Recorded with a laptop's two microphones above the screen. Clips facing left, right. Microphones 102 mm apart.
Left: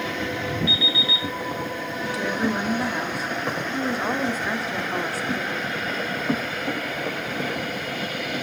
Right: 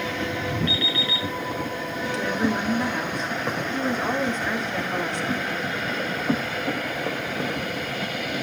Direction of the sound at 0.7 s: 10° left (ahead or behind).